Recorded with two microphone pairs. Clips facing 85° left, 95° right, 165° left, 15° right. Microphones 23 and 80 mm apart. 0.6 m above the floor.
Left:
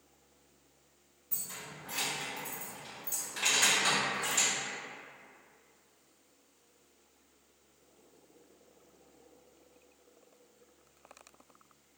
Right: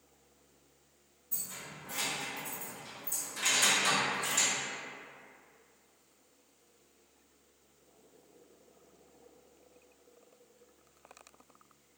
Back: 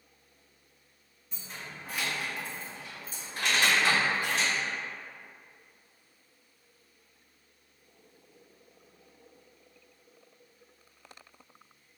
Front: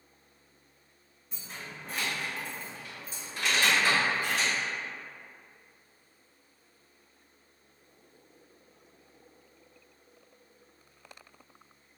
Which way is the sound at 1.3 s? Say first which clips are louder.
Even, even; 70° left.